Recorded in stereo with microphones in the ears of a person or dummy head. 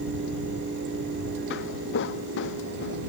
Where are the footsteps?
65° left (ahead or behind).